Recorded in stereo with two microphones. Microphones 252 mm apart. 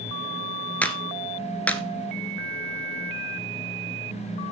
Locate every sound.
0.8 s a clap: 5° left (ahead or behind), 1.1 m